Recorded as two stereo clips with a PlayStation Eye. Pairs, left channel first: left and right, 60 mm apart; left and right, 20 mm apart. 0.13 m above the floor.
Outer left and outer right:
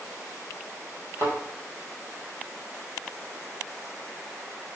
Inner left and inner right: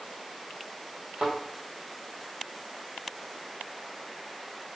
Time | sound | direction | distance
1.2 | a thud | 45° right (ahead or behind) | 1.5 m